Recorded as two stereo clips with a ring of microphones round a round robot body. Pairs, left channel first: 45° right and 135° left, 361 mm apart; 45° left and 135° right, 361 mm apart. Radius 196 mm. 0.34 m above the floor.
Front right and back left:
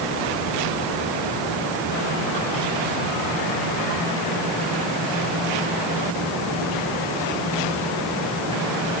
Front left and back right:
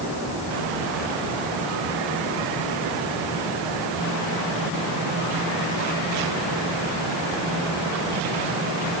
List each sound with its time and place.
Only background noise.